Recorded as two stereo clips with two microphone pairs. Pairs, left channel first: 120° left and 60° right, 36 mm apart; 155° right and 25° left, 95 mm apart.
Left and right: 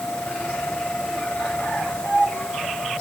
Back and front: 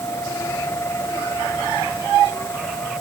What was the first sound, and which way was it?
Only background noise.